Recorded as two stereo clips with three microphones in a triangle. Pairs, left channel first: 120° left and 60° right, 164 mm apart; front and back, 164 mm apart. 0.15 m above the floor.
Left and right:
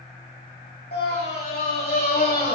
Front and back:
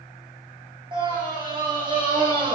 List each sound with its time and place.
0.9 s a scream: 120° left, 8 m